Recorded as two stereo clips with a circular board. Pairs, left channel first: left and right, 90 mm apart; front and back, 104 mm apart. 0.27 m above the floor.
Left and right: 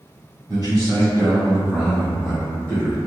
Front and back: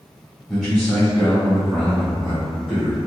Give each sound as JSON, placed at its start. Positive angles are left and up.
{"t": 0.5, "sound": "a man speaking", "azimuth_deg": -95, "distance_m": 1.9}